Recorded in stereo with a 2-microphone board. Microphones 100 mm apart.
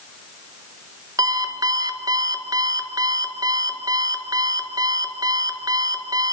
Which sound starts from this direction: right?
An alarm clock, at 1.2 s.